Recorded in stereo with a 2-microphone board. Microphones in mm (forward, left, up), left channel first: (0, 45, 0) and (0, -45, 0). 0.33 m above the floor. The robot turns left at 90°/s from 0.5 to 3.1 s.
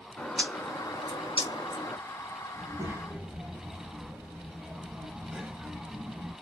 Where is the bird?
165° left, 0.7 m; by 2.0 s 35° left, 0.7 m.